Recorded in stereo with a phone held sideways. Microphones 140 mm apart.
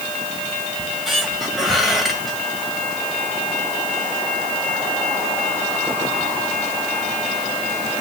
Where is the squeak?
Centre (ahead or behind), 2.5 m.